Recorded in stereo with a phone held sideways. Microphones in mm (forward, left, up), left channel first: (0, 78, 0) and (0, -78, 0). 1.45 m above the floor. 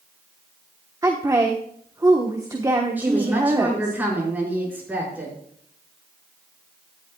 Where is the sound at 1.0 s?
25° right (ahead or behind), 1.2 m.